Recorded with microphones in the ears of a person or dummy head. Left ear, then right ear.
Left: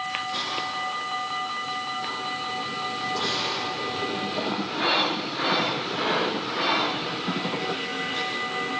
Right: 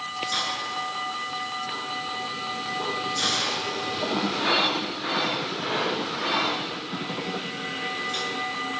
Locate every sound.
0.3 s a hiss: 80° right, 7.5 m